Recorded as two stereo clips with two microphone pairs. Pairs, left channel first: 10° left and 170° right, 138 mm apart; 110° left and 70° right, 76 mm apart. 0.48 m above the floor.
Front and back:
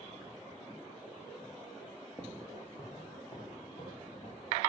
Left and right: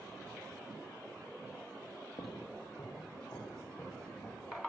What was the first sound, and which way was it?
Footsteps, 85° left.